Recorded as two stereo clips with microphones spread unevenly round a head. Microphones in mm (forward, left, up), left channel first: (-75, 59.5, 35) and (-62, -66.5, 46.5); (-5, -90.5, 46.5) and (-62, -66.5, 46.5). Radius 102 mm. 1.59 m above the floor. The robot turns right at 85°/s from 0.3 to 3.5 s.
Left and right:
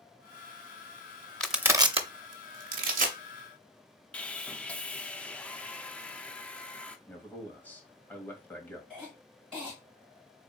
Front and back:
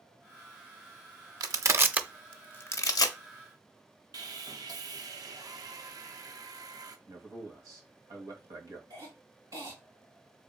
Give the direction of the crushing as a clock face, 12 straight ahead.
6 o'clock.